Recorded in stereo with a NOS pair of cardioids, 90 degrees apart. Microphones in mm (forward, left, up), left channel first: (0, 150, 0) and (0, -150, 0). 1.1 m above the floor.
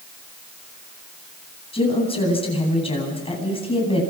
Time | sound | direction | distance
1.7 | a woman speaking | 20° left | 9.5 m